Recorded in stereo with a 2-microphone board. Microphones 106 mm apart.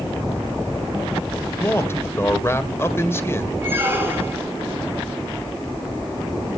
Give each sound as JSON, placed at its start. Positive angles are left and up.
{"t": 1.6, "sound": "a man speaking", "side_deg": 25, "distance_m": 1.7}
{"t": 3.6, "sound": "a squeak", "side_deg": -20, "distance_m": 4.0}